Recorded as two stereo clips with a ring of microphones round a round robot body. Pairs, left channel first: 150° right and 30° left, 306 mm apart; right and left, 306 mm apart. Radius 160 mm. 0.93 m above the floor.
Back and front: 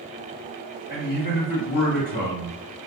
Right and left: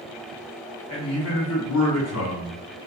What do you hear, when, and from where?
0.9 s a man speaking: 90° right, 1.8 m; by 2.9 s 55° right, 1.2 m